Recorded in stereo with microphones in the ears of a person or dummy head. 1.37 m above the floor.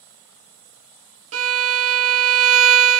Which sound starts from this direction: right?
A violin, at 1.3 s.